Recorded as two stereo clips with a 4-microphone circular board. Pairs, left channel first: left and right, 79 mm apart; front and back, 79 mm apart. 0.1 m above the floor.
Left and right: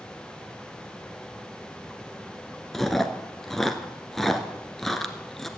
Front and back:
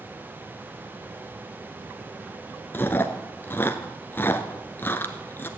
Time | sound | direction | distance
2.7 | chewing | 10° left | 1.1 m